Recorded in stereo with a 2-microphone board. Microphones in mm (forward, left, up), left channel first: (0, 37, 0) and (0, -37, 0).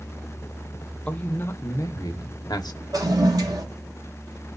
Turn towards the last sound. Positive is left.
turn(degrees=-60)  # may be behind; listen again after turning